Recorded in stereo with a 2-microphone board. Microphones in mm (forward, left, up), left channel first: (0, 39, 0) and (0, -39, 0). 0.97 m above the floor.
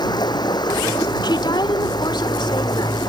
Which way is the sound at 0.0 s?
60° left (ahead or behind).